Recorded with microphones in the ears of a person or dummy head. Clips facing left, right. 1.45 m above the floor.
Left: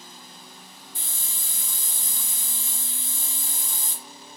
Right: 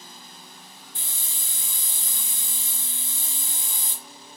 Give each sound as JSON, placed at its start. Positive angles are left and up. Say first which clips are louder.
{"t": 0.9, "sound": "a hiss", "louder": "left 1 dB", "side_deg": -25, "distance_m": 1.3}